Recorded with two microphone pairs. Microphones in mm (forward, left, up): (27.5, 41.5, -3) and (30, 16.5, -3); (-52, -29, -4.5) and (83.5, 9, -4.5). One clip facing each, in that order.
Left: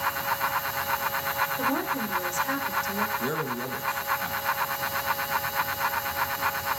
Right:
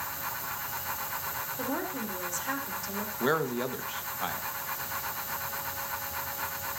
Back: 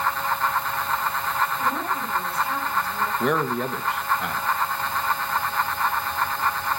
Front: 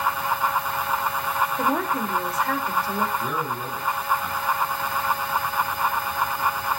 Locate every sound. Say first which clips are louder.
1.6 s a woman speaking: left 6 dB, front 3 dB; 10° left, 3.5 m
3.2 s a man speaking: right 1 dB, back 5 dB; 145° right, 1.4 m